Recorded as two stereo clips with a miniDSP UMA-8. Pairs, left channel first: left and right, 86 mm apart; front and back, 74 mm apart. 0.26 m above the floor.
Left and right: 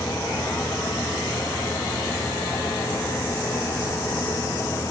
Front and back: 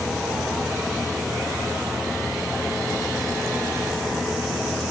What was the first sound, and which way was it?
Only background noise.